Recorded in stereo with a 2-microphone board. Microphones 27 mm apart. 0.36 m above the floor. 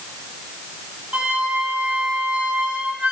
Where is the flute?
70° right (ahead or behind), 8 m.